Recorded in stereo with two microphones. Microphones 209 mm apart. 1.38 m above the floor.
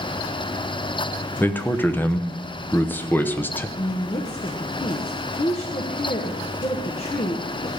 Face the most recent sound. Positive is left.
turn(degrees=30)  # may be behind; listen again after turning